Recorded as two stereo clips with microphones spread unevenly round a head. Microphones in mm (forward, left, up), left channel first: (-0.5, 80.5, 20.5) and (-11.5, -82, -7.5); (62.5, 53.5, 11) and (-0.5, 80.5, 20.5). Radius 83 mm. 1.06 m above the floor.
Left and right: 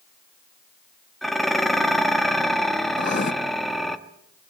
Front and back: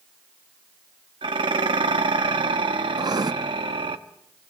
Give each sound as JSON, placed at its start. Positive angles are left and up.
{"t": 1.2, "sound": "dishes clattering", "azimuth_deg": 175, "distance_m": 1.1}
{"t": 3.0, "sound": "writing", "azimuth_deg": 130, "distance_m": 1.1}